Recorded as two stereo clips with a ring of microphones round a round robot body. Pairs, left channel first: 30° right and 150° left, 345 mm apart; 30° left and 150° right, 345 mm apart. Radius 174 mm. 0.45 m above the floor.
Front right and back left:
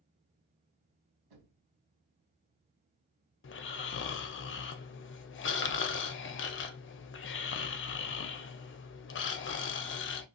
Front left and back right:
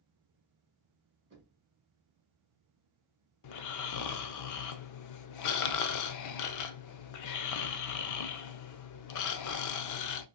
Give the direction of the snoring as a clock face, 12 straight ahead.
11 o'clock.